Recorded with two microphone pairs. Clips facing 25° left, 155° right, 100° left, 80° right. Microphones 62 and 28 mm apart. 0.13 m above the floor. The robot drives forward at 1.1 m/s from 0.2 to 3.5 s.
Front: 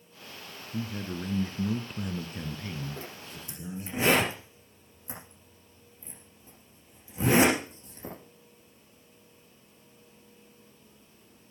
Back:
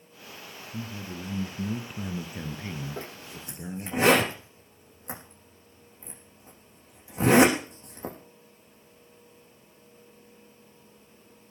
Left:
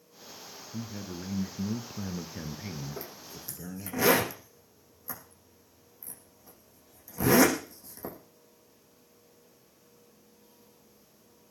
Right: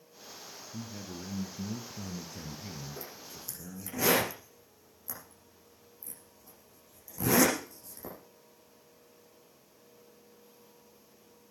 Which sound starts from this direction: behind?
A zipper, at 3.0 s.